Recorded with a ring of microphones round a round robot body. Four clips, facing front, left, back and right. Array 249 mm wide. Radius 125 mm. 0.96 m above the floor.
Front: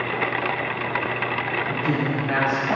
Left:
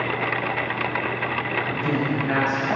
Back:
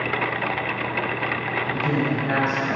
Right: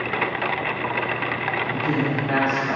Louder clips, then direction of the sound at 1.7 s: Right 1 dB, back 2 dB; 145° left.